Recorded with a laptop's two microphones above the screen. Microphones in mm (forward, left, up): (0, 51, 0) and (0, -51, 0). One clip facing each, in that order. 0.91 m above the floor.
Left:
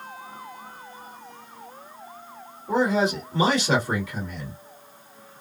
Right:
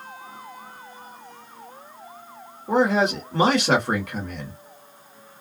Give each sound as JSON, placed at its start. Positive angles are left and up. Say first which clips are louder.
{"t": 2.7, "sound": "a man speaking", "louder": "right 2 dB", "side_deg": -55, "distance_m": 1.7}